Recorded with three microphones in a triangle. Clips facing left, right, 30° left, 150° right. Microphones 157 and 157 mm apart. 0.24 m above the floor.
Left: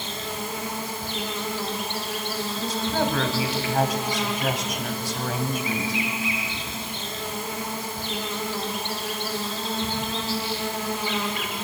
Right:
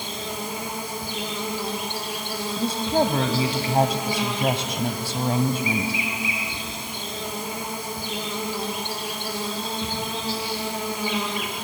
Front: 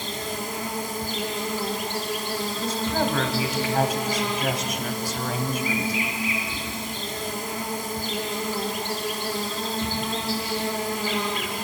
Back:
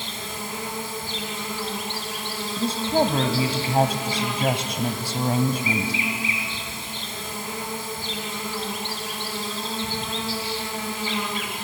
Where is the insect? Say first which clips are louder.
Right 1 dB, front 4 dB; 15° right, 4.5 m.